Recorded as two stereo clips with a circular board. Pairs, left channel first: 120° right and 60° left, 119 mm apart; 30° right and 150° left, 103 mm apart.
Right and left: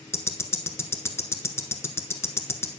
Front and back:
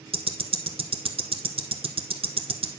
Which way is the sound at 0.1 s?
170° left.